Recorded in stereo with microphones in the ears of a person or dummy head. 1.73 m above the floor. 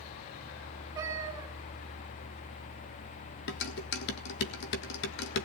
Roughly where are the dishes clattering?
Left.